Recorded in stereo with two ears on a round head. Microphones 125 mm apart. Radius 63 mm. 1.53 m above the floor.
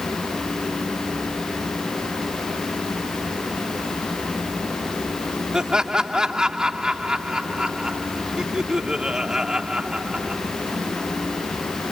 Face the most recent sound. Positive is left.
turn(degrees=-5)  # may be behind; listen again after turning